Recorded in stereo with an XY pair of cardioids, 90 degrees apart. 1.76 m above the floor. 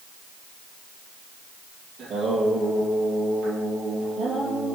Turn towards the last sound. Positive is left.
turn(degrees=-70)